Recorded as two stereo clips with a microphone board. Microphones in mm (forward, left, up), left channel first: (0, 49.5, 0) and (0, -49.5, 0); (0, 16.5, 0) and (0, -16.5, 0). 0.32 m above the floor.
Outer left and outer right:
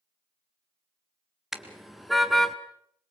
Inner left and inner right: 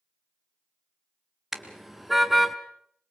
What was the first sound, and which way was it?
A car horn, 5° right (ahead or behind).